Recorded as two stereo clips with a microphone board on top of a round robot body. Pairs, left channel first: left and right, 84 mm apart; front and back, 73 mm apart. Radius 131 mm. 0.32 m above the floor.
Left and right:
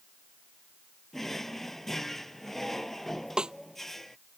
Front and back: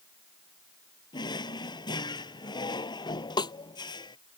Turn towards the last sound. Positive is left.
turn(degrees=-10)